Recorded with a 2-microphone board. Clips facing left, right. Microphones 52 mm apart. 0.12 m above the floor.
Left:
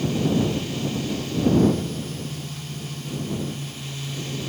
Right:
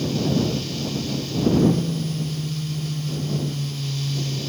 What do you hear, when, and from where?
1.5 s a phone buzzing: 45° right (ahead or behind)